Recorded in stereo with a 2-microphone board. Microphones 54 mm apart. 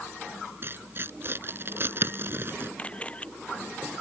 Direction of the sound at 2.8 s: 20° left (ahead or behind).